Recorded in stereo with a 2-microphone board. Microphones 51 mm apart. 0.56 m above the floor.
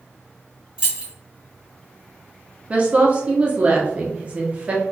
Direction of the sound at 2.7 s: 30° right (ahead or behind).